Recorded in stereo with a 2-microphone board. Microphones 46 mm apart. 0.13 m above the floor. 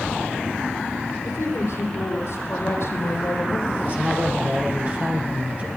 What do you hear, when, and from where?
1.2 s a woman speaking: 75° left (ahead or behind), 5 m; by 3.7 s 65° left (ahead or behind), 5 m
3.8 s a man speaking: 35° right (ahead or behind), 3.5 m